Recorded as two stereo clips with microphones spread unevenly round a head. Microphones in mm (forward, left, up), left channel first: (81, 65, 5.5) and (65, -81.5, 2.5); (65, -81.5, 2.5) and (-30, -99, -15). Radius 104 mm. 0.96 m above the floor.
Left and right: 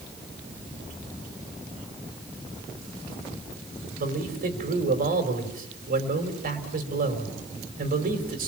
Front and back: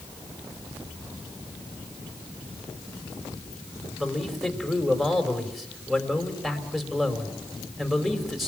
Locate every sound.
4.0 s a man speaking: 80° right, 4 m